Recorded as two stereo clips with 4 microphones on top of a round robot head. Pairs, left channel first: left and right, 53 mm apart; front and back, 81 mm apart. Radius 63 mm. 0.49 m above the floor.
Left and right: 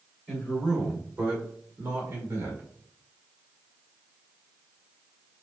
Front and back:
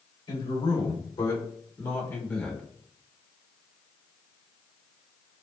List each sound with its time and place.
0.3 s a man speaking: 10° right, 3 m; by 2.6 s 75° right, 2 m